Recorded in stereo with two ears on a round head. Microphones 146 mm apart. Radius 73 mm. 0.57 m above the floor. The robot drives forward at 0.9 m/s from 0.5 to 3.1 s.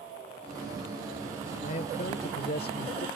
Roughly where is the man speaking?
Left.